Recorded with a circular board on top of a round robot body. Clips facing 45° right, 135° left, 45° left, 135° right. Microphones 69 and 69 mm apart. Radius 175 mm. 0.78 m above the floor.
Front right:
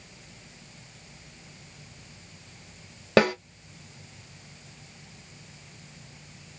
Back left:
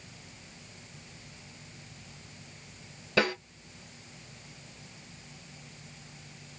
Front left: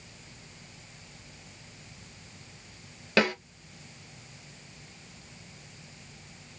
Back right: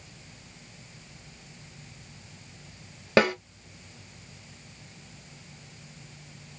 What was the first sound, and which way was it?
A snare drum, 70° right.